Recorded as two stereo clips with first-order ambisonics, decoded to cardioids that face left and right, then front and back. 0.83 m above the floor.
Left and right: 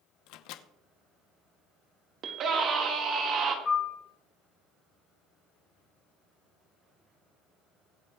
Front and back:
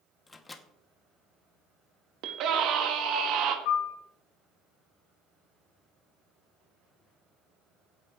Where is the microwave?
75° left, 0.9 m.